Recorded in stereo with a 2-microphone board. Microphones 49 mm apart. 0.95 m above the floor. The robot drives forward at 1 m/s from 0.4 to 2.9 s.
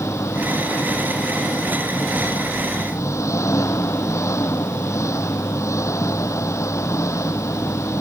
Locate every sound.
0.0 s an engine running: 85° left; by 8.0 s 90° left